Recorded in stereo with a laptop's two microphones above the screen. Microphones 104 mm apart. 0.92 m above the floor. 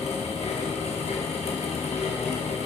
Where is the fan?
80° left, 0.9 m.